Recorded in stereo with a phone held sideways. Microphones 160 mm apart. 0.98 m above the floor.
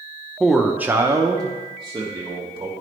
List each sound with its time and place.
0.4 s a man speaking: centre (ahead or behind), 0.6 m; by 2.7 s 30° right (ahead or behind), 1.4 m